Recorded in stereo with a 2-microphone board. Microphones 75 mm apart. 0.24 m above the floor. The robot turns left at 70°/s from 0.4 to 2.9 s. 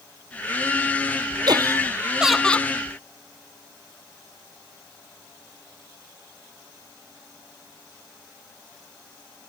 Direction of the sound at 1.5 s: 120° right.